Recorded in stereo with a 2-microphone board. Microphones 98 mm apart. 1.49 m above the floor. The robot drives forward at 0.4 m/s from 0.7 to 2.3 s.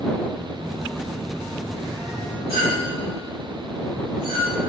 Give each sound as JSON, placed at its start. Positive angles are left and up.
{"t": 0.6, "sound": "a phone buzzing", "side_deg": -15, "distance_m": 3.0}
{"t": 2.5, "sound": "a clink", "side_deg": -70, "distance_m": 3.0}